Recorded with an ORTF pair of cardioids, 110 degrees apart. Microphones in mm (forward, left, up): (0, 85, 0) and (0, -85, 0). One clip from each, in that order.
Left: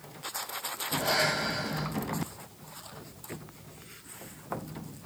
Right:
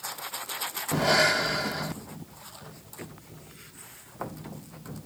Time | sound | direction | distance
0.9 | breathing | 25° right | 0.7 m